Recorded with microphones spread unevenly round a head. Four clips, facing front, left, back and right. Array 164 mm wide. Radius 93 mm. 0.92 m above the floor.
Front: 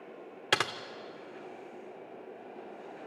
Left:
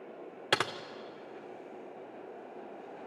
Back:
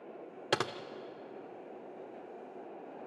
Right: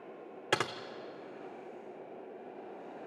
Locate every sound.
0.5 s typing on a keyboard: 140° left, 0.5 m